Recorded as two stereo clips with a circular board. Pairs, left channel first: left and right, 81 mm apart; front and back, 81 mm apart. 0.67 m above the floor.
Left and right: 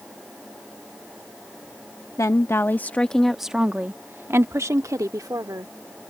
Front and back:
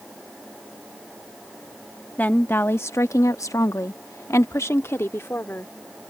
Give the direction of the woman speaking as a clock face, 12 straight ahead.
10 o'clock.